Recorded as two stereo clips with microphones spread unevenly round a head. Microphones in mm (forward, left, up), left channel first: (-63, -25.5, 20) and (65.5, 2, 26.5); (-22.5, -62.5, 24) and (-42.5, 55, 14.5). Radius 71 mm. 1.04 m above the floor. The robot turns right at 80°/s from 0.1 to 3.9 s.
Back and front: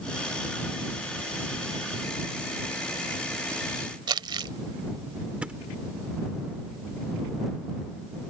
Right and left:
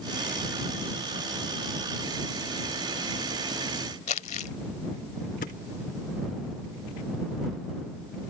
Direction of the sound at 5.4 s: 65° right.